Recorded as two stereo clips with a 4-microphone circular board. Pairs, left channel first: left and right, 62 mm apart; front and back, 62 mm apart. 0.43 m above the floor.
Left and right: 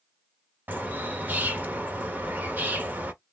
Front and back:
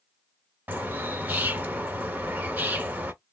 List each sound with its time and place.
0.7 s a bird: 135° right, 1.0 m